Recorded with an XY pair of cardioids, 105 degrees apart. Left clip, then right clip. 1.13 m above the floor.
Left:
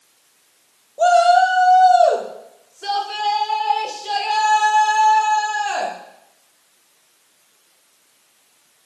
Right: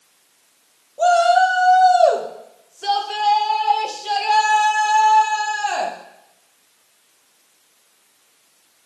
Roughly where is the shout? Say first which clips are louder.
Left 1 dB; ahead.